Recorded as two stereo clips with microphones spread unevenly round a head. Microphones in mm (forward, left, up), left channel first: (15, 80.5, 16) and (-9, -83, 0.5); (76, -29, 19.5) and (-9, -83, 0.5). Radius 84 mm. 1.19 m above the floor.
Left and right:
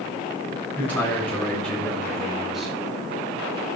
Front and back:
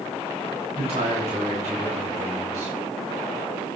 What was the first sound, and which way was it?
A man speaking, 160° left.